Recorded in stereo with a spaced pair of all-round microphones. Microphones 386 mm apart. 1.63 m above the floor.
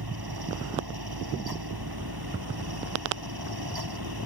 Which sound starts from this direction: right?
A fan, at 0.0 s.